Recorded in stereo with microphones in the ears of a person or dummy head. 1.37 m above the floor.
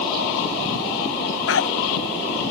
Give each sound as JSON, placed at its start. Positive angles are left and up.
{"t": 1.5, "sound": "a dog barking", "side_deg": 80}